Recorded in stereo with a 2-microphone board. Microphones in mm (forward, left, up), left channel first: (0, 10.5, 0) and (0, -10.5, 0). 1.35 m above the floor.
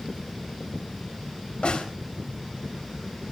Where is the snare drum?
65° left (ahead or behind), 3.5 m.